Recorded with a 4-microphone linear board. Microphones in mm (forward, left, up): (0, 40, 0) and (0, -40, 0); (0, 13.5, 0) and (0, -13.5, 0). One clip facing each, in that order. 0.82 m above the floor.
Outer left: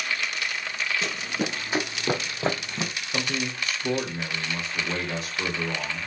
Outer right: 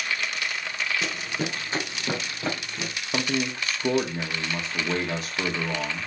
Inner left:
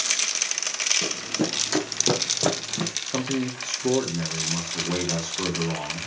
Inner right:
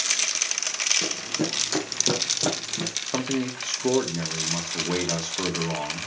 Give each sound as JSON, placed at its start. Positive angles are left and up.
{"t": 1.0, "sound": "running footsteps", "side_deg": -5, "distance_m": 1.8}
{"t": 3.1, "sound": "a man speaking", "side_deg": -50, "distance_m": 1.6}